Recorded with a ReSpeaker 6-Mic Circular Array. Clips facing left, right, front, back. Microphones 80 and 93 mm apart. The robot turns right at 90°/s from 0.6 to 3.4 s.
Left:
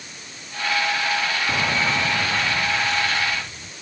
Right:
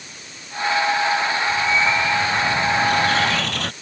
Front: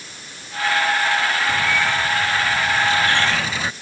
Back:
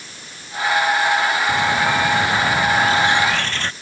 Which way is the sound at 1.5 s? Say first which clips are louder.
Right 3 dB, back 3 dB; 105° left.